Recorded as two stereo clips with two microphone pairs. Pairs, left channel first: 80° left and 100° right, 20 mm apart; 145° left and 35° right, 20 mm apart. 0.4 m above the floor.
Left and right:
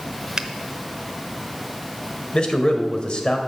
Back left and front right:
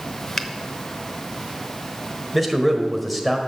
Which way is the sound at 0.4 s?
145° right.